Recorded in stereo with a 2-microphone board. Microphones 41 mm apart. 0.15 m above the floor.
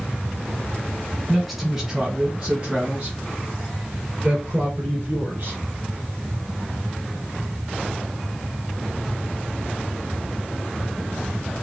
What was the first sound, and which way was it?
A man speaking, centre (ahead or behind).